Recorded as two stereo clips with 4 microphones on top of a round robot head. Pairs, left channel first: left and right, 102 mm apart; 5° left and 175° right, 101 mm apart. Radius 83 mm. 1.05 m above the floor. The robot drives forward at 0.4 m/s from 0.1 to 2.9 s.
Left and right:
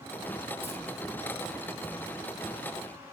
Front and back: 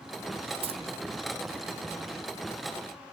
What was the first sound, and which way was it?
Keys jangling, 165° left.